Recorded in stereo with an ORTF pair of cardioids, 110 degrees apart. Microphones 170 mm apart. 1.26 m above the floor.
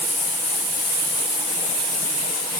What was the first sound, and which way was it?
Only background noise.